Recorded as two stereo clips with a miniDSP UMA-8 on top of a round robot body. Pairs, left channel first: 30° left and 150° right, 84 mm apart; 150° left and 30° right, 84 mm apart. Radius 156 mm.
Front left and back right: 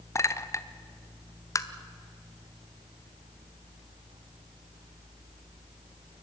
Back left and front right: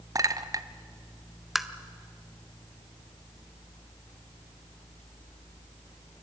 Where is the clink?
10° right, 0.9 m.